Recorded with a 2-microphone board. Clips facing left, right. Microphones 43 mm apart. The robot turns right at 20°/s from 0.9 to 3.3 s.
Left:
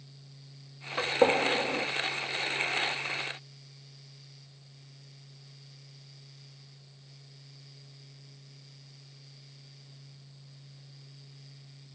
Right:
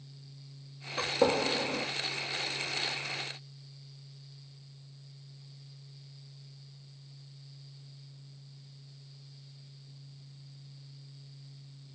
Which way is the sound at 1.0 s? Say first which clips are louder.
Left 3 dB; 15° left (ahead or behind).